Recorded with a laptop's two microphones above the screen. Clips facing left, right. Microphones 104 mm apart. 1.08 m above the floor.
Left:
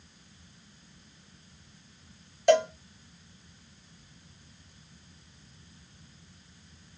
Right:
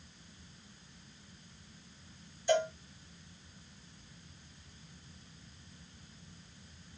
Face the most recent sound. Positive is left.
turn(degrees=80)